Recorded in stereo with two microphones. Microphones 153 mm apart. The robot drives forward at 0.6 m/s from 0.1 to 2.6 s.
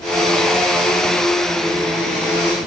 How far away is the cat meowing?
No cat meowing in this recording.